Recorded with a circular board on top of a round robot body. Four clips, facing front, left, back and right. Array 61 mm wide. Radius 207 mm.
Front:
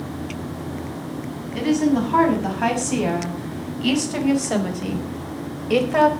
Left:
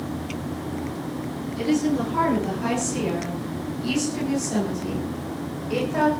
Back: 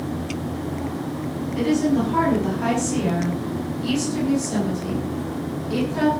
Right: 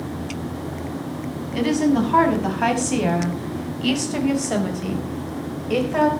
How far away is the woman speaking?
About 6.5 m.